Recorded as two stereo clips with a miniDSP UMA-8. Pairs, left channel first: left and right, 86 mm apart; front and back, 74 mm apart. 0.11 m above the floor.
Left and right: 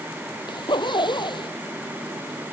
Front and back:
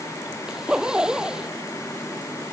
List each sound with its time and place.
0.5 s a zipper: 100° left